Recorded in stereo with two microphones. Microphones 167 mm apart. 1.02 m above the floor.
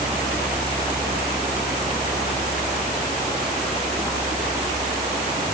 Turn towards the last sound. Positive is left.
No sound to turn to.